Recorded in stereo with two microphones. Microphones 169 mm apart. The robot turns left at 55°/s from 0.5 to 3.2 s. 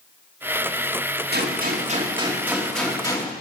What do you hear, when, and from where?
1.3 s a gunshot: 105° right, 2.5 m; by 3.3 s 150° left, 2.5 m